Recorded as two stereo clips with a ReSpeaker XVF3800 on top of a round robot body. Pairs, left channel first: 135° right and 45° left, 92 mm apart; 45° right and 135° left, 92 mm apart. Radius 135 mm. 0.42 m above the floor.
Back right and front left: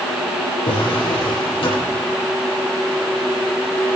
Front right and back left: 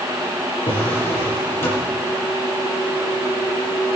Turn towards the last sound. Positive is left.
turn(degrees=-110)